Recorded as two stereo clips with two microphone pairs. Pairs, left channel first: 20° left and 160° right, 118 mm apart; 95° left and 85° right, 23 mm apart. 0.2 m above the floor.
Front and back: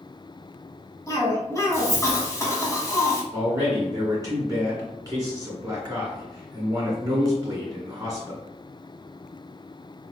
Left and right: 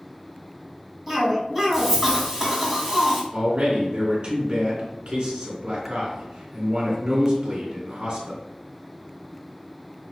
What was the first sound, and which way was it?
A cough, 20° right.